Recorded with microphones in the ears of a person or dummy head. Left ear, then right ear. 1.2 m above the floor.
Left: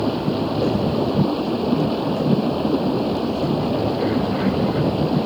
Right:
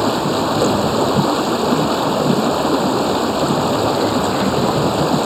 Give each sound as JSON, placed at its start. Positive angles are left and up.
{"t": 0.0, "sound": "running water", "side_deg": -55}